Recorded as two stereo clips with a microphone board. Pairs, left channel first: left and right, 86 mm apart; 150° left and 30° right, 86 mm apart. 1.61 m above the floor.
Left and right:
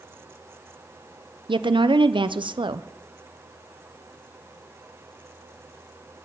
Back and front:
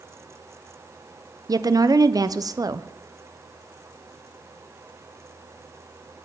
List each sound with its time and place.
1.5 s a woman speaking: 75° right, 0.7 m